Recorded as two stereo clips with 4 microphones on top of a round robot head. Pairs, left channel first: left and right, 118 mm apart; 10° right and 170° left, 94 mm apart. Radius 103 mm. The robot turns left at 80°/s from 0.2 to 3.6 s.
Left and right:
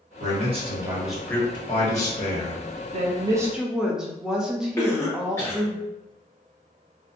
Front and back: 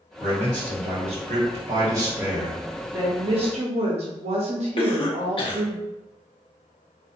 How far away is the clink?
I don't hear a clink.